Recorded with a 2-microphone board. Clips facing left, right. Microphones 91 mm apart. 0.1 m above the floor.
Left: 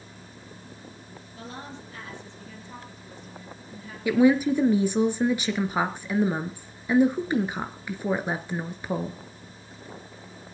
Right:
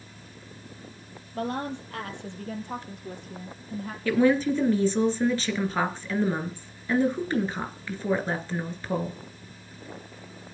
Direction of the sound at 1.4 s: 60° right (ahead or behind).